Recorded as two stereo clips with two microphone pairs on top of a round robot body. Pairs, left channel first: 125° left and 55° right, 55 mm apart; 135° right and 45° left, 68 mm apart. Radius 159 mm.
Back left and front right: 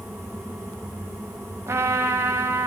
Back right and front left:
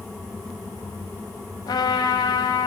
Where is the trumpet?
100° right, 0.6 m.